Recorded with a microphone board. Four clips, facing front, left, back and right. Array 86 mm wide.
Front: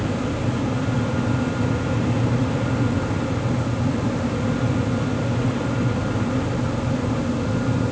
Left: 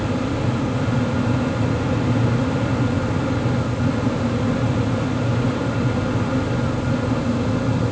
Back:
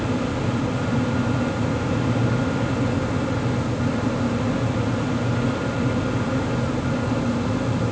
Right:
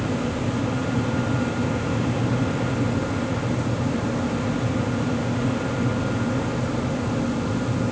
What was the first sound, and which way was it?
Only background noise.